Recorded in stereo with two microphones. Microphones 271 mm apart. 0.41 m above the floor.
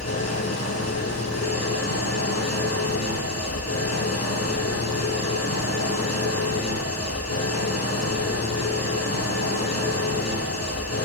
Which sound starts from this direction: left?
An engine running, at 0.0 s.